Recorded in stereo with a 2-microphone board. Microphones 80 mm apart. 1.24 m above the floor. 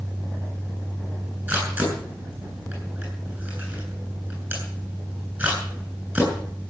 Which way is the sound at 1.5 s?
25° right (ahead or behind).